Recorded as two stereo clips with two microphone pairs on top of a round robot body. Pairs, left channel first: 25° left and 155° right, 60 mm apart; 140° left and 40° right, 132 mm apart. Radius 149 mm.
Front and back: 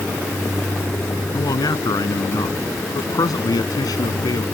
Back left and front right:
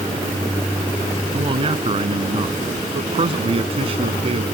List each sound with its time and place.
1.3 s a man speaking: 10° left